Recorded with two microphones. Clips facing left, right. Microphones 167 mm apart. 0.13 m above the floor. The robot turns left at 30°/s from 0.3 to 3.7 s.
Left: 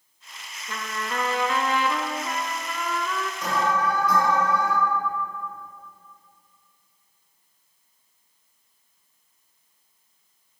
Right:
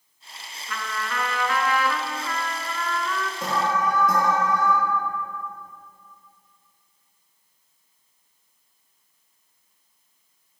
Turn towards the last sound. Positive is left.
turn(degrees=-50)  # may be behind; listen again after turning